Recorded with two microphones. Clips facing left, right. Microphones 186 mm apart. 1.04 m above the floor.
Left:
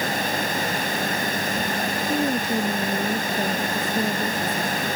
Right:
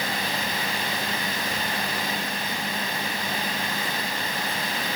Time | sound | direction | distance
2.1 | a woman speaking | 80° left | ?